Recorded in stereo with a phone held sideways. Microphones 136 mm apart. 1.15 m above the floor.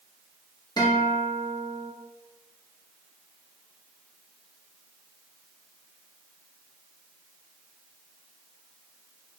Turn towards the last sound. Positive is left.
turn(degrees=30)  # may be behind; listen again after turning